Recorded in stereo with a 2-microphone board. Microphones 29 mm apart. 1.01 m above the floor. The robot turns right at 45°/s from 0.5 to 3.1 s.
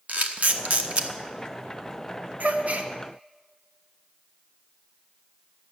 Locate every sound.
0.1 s a camera shutter: 70° right (ahead or behind), 1.0 m; by 1.1 s 50° right (ahead or behind), 1.0 m
2.4 s a gasp: 75° right (ahead or behind), 1.1 m; by 2.9 s 55° right (ahead or behind), 1.1 m